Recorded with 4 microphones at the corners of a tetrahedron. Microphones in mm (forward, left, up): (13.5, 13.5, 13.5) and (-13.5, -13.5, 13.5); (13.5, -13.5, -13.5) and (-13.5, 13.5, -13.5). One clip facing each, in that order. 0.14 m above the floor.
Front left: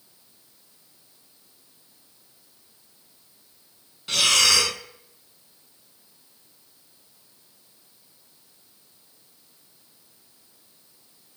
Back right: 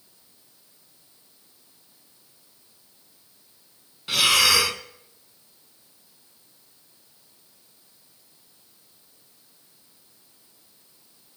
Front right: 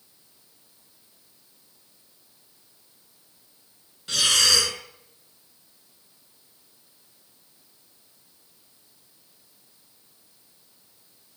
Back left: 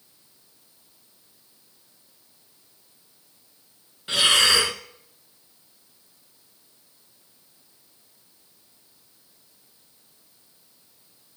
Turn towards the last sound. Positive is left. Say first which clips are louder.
# back right 1 dB, back left 3 dB
turn(degrees=165)